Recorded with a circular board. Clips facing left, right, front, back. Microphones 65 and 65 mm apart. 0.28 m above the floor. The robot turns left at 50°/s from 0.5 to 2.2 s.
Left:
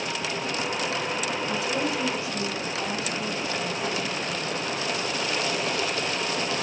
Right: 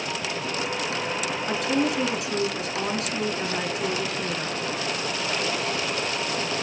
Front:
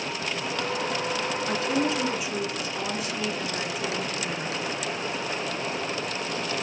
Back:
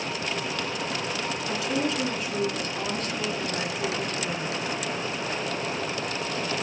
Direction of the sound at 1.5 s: 45° right.